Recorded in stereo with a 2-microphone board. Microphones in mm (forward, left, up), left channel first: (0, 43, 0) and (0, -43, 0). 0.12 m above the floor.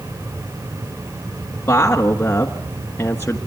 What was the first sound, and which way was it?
A woman speaking, 25° left (ahead or behind).